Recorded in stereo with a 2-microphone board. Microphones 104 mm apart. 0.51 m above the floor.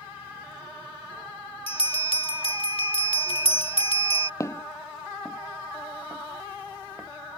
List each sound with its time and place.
1.7 s a bell: 60° left (ahead or behind)
4.4 s footsteps: 30° left (ahead or behind); by 7.1 s 20° right (ahead or behind)